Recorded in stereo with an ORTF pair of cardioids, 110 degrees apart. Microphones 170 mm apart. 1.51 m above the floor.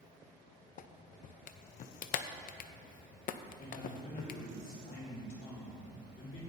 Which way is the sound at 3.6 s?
60° left.